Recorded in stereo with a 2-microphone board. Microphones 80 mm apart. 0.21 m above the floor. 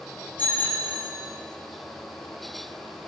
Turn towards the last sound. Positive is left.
turn(degrees=25)  # may be behind; listen again after turning